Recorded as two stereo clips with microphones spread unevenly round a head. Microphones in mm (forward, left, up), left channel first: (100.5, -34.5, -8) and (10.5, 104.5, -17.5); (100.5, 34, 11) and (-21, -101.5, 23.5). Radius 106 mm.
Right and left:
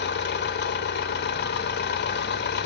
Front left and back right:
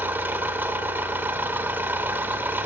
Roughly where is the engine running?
Ahead right.